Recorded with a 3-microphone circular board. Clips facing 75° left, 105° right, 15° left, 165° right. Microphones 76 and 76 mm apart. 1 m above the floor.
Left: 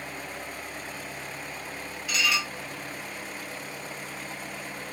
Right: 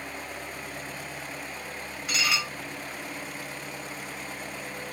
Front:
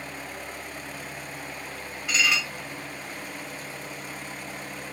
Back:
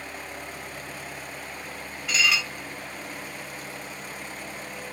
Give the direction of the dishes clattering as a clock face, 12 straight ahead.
3 o'clock.